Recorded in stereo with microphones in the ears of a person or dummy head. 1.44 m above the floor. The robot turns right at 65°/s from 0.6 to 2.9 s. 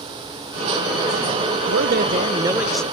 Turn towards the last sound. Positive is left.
turn(degrees=15)